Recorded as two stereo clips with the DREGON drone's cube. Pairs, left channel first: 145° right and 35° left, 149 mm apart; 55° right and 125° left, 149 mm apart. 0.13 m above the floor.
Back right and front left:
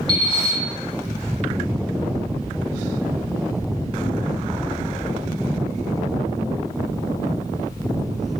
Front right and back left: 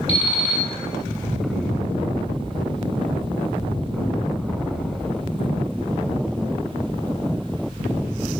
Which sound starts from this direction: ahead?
An alarm clock, at 0.1 s.